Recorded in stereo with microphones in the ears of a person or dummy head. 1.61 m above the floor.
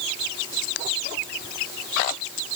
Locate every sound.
Only background noise.